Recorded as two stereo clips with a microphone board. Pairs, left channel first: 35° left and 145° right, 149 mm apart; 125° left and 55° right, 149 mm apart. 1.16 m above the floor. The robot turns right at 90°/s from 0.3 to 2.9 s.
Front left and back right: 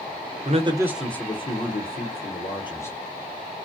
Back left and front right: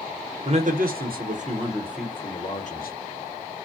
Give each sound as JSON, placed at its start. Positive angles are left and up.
{"t": 0.5, "sound": "a man speaking", "azimuth_deg": -110, "distance_m": 0.8}